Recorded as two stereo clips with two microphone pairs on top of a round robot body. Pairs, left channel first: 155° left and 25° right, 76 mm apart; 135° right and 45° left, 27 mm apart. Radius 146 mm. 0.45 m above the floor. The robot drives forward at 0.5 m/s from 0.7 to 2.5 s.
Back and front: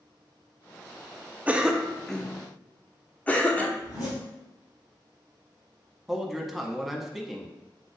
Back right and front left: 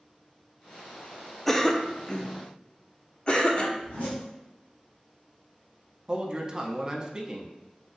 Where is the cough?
100° right, 0.7 m; by 3.7 s 155° right, 0.9 m.